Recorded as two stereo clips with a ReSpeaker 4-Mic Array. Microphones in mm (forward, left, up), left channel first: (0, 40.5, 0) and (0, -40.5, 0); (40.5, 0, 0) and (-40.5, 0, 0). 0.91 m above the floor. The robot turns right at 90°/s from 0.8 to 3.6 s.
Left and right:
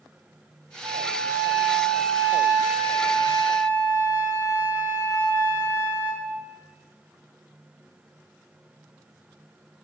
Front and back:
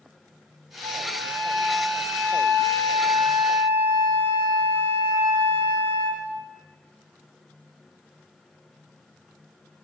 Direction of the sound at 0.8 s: 110° right.